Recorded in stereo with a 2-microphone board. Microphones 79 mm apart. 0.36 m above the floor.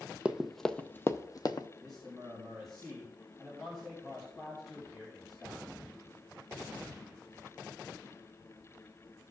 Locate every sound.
0.2 s running footsteps: 10° right (ahead or behind), 0.6 m; by 1.7 s 60° left (ahead or behind), 0.7 m
1.8 s a man speaking: centre (ahead or behind), 3 m